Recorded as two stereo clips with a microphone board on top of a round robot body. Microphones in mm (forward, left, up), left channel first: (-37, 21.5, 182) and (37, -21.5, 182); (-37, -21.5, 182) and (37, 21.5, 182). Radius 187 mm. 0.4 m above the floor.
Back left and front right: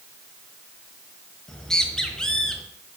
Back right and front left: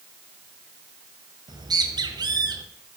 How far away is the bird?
About 1.4 m.